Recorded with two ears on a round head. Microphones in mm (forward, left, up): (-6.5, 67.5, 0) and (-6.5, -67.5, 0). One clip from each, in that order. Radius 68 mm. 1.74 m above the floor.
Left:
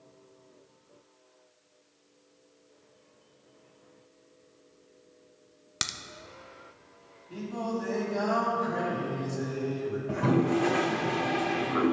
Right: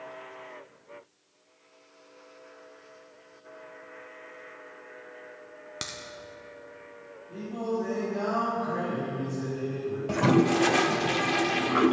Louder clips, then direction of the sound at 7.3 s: Right 2 dB; 75° left (ahead or behind).